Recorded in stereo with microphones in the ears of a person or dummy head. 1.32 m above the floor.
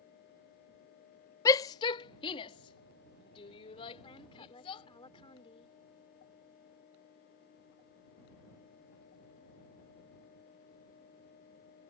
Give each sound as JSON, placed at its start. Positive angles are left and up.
{"t": 1.4, "sound": "a shout", "side_deg": 15}
{"t": 4.0, "sound": "a woman speaking", "side_deg": 25}